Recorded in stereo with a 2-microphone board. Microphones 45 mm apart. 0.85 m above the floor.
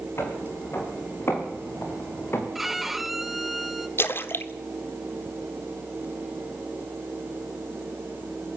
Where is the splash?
60° left (ahead or behind), 1.4 m.